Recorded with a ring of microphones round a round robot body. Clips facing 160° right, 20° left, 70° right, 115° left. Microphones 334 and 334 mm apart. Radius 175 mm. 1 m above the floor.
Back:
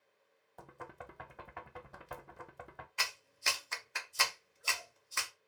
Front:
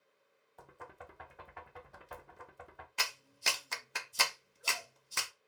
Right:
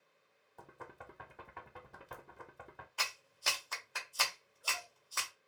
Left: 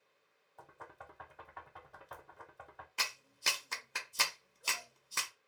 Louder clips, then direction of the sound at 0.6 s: Back 2 dB, right 3 dB; 130° right.